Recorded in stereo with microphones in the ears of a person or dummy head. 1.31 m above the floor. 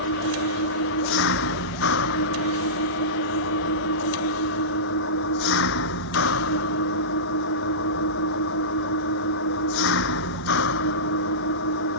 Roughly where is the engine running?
Left.